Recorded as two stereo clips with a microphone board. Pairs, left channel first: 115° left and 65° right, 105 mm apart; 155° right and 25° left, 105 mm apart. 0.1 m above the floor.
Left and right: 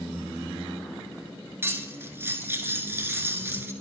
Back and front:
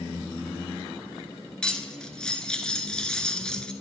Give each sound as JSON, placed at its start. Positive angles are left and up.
{"t": 1.6, "sound": "cutlery clinking", "azimuth_deg": -85, "distance_m": 0.8}